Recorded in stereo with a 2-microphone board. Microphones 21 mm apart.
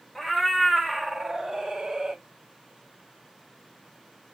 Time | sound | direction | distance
0.1 | a cat meowing | 5° left (ahead or behind) | 1.2 m